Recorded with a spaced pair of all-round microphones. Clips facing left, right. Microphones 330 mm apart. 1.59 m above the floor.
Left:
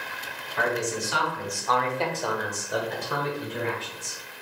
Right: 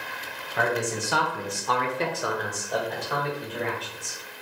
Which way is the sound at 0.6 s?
70° right (ahead or behind).